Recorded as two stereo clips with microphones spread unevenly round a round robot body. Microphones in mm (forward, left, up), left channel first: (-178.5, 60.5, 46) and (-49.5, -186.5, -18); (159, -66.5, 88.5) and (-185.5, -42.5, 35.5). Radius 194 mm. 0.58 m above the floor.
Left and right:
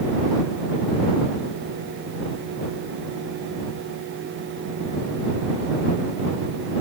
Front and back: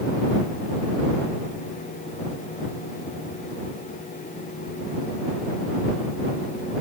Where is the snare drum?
I don't hear a snare drum.